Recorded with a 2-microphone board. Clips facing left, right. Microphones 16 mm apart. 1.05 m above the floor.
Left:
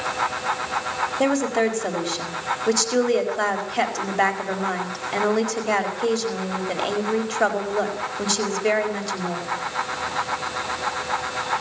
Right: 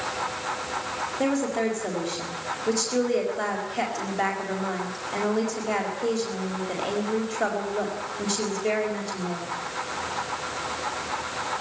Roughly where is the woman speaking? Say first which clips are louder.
Left 4 dB; left.